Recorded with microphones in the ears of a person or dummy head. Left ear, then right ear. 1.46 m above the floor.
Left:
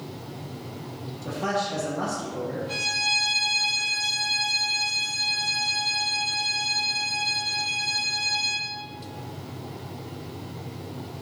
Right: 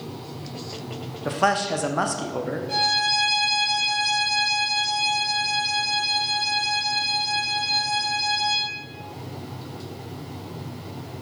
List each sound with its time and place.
1.2 s a man speaking: 45° right (ahead or behind), 0.6 m
2.7 s a violin: centre (ahead or behind), 0.9 m